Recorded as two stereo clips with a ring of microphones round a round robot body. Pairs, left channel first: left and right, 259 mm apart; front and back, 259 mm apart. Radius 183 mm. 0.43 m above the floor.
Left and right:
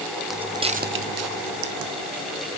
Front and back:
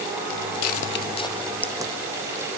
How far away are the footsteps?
About 1.3 m.